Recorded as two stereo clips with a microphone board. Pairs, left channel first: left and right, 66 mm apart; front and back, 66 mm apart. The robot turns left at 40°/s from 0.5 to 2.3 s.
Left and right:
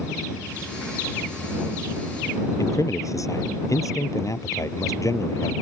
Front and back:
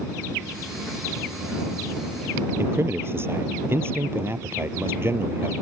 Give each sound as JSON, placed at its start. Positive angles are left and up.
{"t": 2.6, "sound": "a man speaking", "azimuth_deg": 125}